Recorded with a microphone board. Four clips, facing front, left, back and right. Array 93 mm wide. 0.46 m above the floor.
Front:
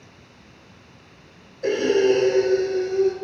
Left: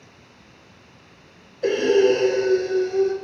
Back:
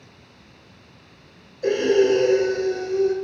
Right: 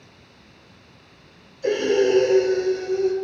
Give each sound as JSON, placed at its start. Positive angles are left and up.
{"t": 1.6, "sound": "breathing", "azimuth_deg": 95, "distance_m": 5.5}